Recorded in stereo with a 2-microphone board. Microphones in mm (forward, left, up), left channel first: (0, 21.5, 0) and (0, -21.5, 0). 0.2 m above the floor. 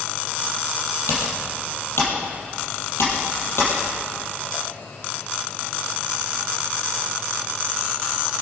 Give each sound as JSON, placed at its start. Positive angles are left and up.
{"t": 1.1, "sound": "typing on a keyboard", "side_deg": 70, "distance_m": 4.5}